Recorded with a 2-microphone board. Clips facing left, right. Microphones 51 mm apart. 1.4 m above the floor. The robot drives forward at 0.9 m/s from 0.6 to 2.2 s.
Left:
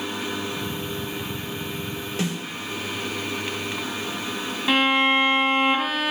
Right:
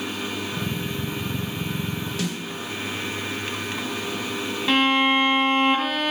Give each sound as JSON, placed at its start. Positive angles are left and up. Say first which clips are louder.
{"t": 2.2, "sound": "a snare drum", "louder": "left 3 dB", "side_deg": 35, "distance_m": 4.0}
{"t": 4.7, "sound": "a violin", "louder": "even", "side_deg": 5, "distance_m": 1.4}